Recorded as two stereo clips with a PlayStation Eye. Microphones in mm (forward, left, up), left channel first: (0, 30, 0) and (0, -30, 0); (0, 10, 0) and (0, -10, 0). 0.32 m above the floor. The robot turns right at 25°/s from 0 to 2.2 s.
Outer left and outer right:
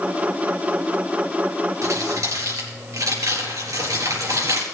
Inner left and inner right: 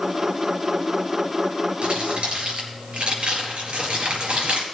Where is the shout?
No shout in this recording.